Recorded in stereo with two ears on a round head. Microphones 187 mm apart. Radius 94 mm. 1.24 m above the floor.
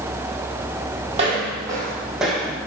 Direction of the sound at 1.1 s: 35° right (ahead or behind).